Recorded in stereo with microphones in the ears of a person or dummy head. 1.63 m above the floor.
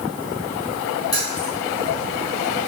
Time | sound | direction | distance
1.1 | keys jangling | 20° left (ahead or behind) | 1.2 m